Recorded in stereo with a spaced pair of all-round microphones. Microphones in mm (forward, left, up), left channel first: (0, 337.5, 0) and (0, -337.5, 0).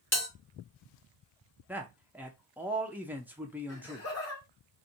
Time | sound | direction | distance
0.1 | a bell | 15° left (ahead or behind) | 1.3 m
1.7 | a man speaking | 5° right (ahead or behind) | 0.5 m
3.7 | laughter | 20° left (ahead or behind) | 1.5 m